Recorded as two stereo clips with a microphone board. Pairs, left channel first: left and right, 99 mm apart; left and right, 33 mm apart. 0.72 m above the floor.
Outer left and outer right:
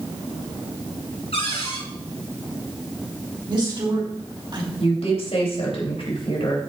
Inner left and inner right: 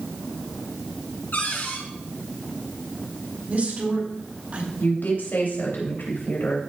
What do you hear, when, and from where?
1.3 s a cupboard door: 85° left, 5.5 m
3.5 s a woman speaking: 50° right (ahead or behind), 4 m
4.8 s a woman speaking: 80° left, 3.5 m